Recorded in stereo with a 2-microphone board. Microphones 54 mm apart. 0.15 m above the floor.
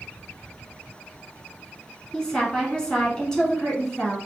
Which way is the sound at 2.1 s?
15° left (ahead or behind).